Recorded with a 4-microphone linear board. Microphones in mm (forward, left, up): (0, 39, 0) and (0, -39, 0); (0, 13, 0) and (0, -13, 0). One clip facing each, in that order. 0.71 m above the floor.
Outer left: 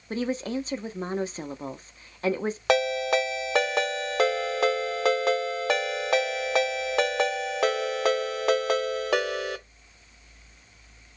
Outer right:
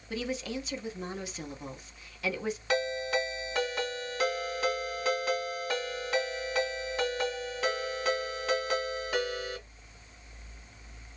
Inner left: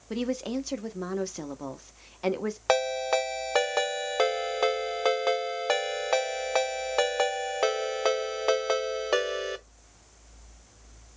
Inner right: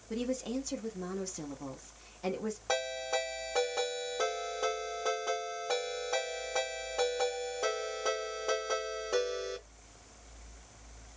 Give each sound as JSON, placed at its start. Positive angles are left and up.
{"t": 0.1, "sound": "a woman speaking", "side_deg": 35, "distance_m": 0.5}
{"t": 2.7, "sound": "a ringtone", "side_deg": 85, "distance_m": 0.8}